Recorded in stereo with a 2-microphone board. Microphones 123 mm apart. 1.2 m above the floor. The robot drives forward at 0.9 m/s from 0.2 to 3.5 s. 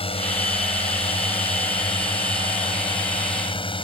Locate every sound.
0.0 s a drone: 50° left (ahead or behind); by 3.8 s 45° left (ahead or behind)